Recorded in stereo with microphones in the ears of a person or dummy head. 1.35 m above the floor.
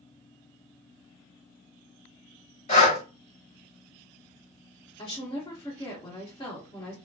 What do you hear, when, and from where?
2.7 s breathing: 35° left (ahead or behind), 1.6 m
5.0 s a woman speaking: 30° left (ahead or behind), 1.3 m